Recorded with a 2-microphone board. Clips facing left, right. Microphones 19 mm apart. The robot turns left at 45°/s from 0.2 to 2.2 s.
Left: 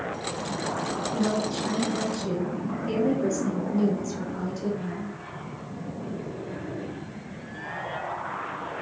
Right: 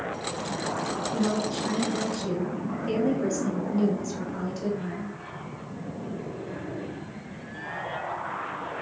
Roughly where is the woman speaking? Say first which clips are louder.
Left 1 dB; centre.